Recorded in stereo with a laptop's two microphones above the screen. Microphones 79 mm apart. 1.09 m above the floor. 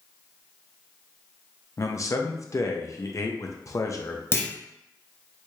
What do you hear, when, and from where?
1.8 s a man speaking: 40° left (ahead or behind), 0.6 m
4.3 s a clunk: 30° left (ahead or behind), 0.6 m